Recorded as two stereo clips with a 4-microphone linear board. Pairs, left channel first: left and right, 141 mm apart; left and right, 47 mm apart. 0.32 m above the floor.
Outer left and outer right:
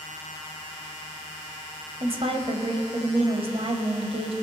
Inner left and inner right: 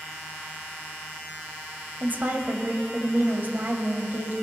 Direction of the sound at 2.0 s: 45° right (ahead or behind).